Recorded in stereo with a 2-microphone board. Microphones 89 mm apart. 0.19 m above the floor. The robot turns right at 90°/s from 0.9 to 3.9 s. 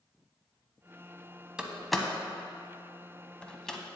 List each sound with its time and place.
1.6 s a door slam: 10° right (ahead or behind), 0.8 m; by 3.8 s 5° left (ahead or behind), 0.8 m